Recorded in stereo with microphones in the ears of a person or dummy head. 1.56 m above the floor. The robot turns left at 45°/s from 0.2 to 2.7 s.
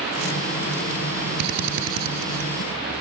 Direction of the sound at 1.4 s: 60° right (ahead or behind).